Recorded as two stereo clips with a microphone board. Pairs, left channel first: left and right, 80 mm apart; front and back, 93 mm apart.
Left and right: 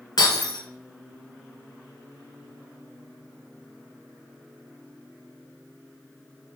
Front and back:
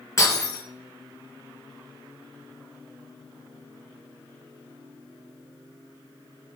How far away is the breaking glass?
About 2.5 m.